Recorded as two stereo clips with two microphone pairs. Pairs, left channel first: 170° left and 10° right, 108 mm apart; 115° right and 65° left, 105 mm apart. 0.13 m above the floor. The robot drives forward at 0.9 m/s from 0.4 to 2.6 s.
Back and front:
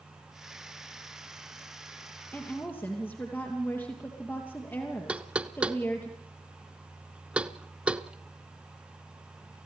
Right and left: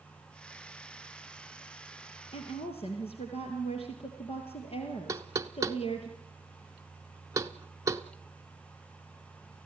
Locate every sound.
2.3 s a woman speaking: 115° right, 2.5 m; by 6.1 s 120° right, 3 m
5.1 s knocking: 60° left, 0.8 m